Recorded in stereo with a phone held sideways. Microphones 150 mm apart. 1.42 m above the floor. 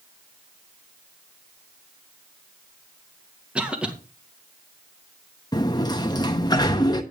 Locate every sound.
3.5 s a cough: 5° right (ahead or behind), 1.8 m
5.5 s a sliding door: 25° left (ahead or behind), 1.0 m